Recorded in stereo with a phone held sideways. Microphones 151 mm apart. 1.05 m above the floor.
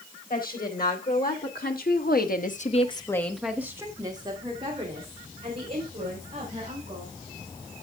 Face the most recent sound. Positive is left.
turn(degrees=-45)  # may be behind; listen again after turning